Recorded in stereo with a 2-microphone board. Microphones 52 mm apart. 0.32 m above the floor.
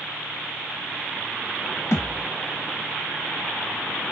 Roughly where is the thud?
Left.